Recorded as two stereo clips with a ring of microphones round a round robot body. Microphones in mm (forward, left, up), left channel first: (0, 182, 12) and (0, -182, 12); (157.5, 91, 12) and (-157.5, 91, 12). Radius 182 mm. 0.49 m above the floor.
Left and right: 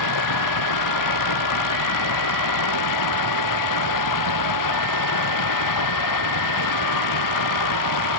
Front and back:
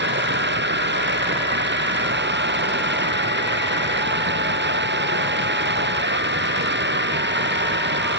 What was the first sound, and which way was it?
Running water, 125° left.